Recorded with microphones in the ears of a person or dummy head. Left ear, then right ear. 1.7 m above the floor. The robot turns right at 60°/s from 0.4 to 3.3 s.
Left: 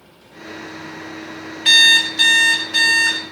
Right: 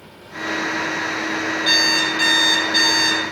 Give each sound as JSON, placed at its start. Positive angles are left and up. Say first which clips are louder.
{"t": 1.6, "sound": "an alarm clock", "louder": "left 7 dB", "side_deg": 30, "distance_m": 0.9}